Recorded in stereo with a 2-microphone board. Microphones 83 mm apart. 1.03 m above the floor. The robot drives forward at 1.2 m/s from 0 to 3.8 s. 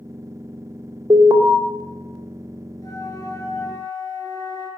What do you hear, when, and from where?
1.1 s an alarm: 50° right (ahead or behind), 2 m; by 1.5 s 60° right (ahead or behind), 1.8 m
2.8 s a flute: 45° left (ahead or behind), 3.5 m; by 4.7 s 35° left (ahead or behind), 4.5 m